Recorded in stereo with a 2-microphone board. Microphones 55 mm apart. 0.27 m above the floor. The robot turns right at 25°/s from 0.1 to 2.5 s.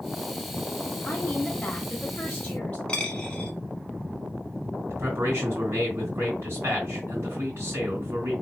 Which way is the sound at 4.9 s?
50° right (ahead or behind).